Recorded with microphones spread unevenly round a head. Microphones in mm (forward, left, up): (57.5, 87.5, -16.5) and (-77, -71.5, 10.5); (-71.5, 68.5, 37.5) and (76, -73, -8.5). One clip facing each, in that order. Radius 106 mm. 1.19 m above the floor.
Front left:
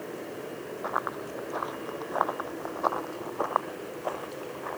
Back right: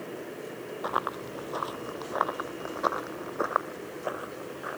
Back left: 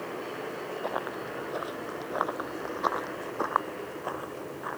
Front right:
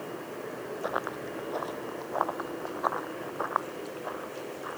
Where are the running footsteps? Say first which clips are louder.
Back right 1 dB, front right 1 dB; 135° right; by 4.8 s 155° left.